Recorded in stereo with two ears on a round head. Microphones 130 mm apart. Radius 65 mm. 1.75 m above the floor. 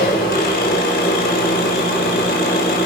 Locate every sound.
0.0 s an engine running: 70° left (ahead or behind), 5.5 m